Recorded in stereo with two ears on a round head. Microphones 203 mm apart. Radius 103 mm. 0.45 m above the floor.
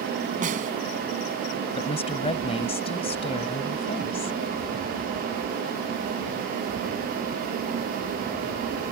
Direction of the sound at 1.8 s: 25° left (ahead or behind).